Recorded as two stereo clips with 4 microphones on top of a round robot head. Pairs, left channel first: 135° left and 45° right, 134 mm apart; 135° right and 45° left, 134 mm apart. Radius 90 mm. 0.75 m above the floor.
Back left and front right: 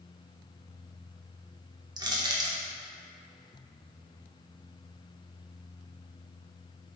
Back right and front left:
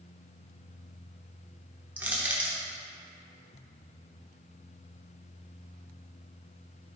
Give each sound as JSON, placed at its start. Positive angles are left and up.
{"t": 2.0, "sound": "crushing", "azimuth_deg": -25, "distance_m": 0.9}